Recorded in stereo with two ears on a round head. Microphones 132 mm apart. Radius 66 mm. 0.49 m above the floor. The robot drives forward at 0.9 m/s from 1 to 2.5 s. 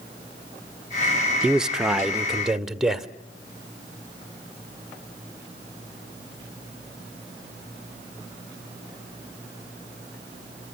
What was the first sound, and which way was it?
A man speaking, 5° right (ahead or behind).